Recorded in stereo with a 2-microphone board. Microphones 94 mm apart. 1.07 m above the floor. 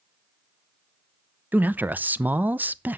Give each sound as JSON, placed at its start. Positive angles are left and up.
{"t": 1.5, "sound": "a man speaking", "side_deg": -15, "distance_m": 0.5}